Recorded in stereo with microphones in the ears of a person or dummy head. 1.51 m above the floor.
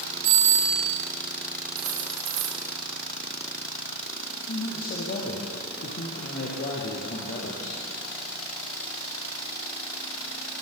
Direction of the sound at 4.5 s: 40° left (ahead or behind).